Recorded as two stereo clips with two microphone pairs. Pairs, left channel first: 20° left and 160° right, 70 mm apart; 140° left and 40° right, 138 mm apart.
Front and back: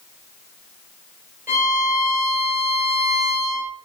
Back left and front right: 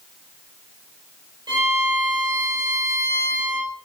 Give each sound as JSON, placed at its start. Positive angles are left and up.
{"t": 1.5, "sound": "a violin", "azimuth_deg": -105, "distance_m": 1.8}